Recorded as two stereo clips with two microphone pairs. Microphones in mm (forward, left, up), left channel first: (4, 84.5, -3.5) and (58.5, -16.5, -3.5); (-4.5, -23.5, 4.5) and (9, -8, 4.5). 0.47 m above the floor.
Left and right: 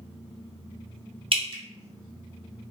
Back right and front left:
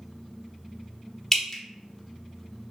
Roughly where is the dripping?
Ahead right.